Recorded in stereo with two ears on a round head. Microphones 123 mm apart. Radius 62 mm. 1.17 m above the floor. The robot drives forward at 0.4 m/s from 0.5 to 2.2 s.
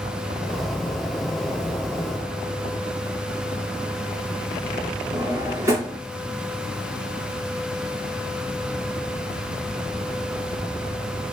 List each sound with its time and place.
5.1 s a drawer: 20° right (ahead or behind), 1.0 m